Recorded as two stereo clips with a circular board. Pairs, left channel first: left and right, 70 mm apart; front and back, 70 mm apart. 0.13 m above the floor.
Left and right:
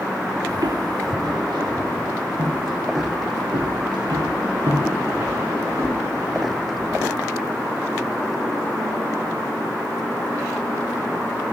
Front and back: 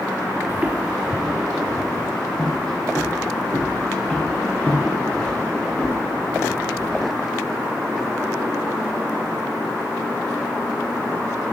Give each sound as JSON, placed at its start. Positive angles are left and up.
{"t": 0.5, "sound": "footsteps", "azimuth_deg": -115, "distance_m": 0.8}